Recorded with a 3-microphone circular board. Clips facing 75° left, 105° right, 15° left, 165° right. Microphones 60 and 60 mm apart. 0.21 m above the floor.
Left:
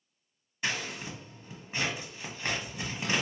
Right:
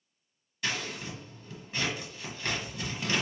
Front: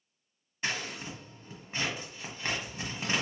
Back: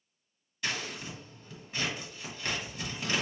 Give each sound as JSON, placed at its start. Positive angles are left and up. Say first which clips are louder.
{"t": 0.6, "sound": "scissors", "louder": "even, front 1 dB", "azimuth_deg": 40, "distance_m": 1.1}